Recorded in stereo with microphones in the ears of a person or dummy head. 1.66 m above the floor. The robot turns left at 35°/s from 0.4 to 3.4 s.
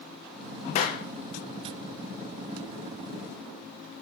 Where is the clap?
30° left (ahead or behind), 0.8 m; by 1.1 s 35° left (ahead or behind), 0.8 m.